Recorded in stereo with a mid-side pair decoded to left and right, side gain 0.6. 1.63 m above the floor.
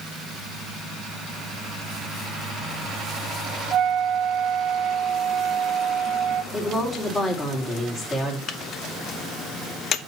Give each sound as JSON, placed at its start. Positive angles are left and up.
{"t": 3.7, "sound": "a flute", "azimuth_deg": -55, "distance_m": 0.5}
{"t": 6.5, "sound": "a woman speaking", "azimuth_deg": 30, "distance_m": 4.5}
{"t": 8.5, "sound": "a microwave", "azimuth_deg": 45, "distance_m": 0.7}